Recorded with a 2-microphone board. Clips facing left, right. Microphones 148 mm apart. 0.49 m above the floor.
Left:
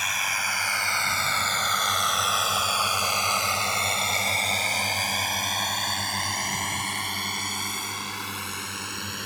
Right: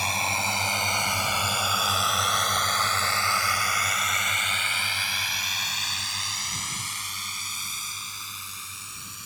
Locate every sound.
0.0 s a drone: 30° right (ahead or behind); by 9.3 s 70° left (ahead or behind)